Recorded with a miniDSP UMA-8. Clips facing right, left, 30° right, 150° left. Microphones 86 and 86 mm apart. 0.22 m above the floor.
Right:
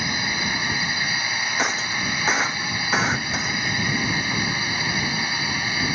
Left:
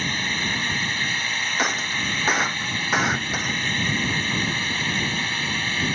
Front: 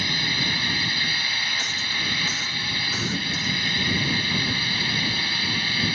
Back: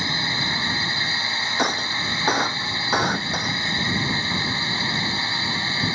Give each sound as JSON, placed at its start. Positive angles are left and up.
{"t": 0.0, "sound": "a drone", "azimuth_deg": -165}
{"t": 1.6, "sound": "breaking glass", "azimuth_deg": 180}